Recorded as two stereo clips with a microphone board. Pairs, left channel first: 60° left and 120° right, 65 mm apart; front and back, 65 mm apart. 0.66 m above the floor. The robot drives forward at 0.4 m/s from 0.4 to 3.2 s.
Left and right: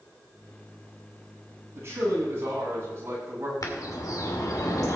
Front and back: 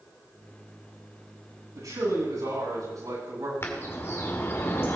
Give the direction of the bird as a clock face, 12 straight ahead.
10 o'clock.